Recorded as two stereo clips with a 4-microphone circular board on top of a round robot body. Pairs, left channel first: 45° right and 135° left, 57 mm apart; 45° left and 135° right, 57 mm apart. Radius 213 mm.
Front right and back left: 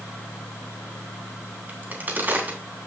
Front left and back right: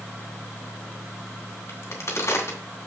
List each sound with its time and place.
1.7 s a crack: 80° left, 3.5 m